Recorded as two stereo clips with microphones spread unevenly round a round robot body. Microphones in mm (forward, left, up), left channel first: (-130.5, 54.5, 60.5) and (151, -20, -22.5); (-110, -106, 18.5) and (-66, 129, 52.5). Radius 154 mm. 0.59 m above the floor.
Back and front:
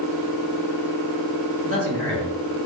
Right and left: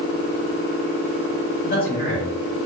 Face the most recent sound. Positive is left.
turn(degrees=-60)